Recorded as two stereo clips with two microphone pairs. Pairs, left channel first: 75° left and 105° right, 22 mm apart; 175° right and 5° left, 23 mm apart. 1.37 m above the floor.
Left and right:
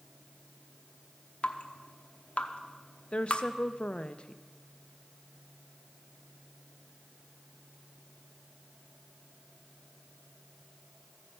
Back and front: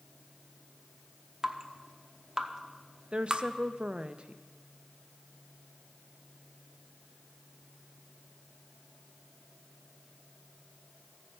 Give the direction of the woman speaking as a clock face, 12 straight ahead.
11 o'clock.